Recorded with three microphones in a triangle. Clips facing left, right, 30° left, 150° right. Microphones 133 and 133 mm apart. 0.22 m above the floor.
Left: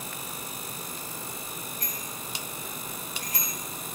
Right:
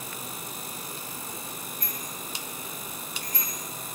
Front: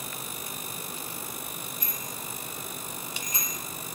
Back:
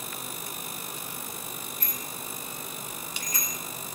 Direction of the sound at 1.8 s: 105° left.